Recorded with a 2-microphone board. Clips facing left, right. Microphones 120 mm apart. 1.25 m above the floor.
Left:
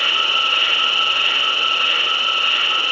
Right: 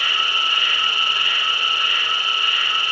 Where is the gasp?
I don't hear a gasp.